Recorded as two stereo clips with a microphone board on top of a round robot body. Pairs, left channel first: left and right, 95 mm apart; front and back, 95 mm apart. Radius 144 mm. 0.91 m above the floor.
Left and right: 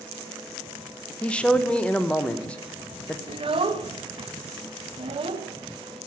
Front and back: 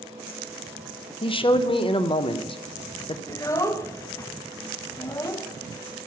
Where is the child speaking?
60° right, 0.9 m.